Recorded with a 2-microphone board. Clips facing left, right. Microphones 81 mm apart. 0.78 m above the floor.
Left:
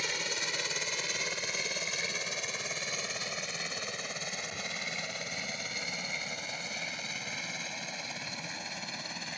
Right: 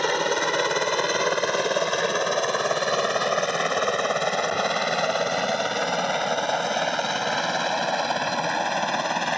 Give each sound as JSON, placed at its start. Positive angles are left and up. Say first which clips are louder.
{"t": 0.0, "sound": "a helicopter", "louder": "right 15 dB", "side_deg": -65}